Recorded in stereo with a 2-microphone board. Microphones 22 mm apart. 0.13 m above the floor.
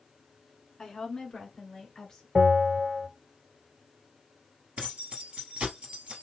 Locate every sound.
0.8 s a woman speaking: 25° left (ahead or behind), 1.6 m
2.4 s a bell: 30° right (ahead or behind), 1.9 m
4.8 s keys jangling: 55° right (ahead or behind), 2.0 m